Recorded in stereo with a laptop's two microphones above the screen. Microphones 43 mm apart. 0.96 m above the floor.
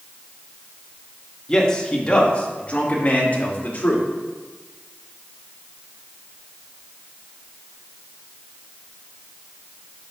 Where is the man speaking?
15° left (ahead or behind), 1.8 m; by 4.0 s 45° left (ahead or behind), 2.5 m.